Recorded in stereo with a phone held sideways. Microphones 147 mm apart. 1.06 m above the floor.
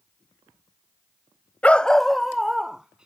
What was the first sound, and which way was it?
A dog barking, 10° left (ahead or behind).